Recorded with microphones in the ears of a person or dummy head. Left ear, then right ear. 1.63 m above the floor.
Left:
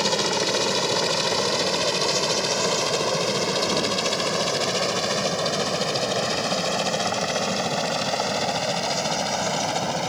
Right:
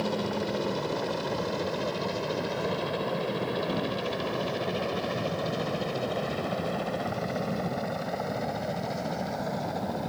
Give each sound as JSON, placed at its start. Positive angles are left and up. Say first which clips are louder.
{"t": 0.0, "sound": "a helicopter", "louder": "left 8 dB", "side_deg": 70}